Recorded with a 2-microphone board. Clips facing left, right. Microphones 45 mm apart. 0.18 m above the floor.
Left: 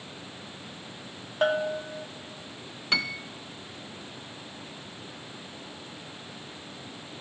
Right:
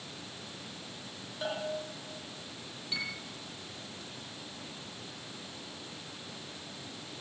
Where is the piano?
80° left, 0.9 m.